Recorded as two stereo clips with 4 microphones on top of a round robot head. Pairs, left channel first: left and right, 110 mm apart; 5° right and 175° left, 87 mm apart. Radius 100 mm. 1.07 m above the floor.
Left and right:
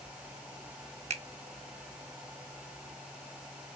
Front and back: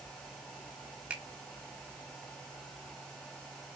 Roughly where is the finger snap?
Right.